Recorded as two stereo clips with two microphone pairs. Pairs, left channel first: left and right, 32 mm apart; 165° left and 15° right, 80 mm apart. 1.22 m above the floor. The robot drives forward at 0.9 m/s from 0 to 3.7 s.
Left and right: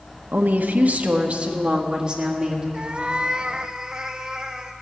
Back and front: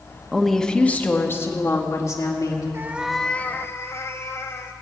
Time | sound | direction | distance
0.3 | a woman speaking | 100° right | 1.1 m
2.7 | a cat meowing | 50° right | 0.7 m